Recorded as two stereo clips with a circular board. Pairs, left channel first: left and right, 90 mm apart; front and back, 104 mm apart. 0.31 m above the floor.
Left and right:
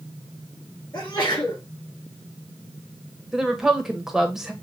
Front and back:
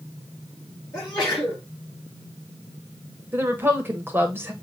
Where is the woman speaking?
165° right, 1.1 m.